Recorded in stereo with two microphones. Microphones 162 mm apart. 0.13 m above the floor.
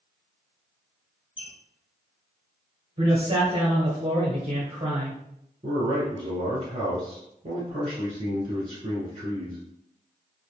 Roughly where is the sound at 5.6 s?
Right.